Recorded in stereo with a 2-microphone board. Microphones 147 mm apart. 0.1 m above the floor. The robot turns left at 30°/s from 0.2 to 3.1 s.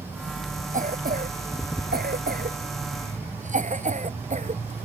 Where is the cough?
55° right (ahead or behind); by 4.9 s 50° right (ahead or behind).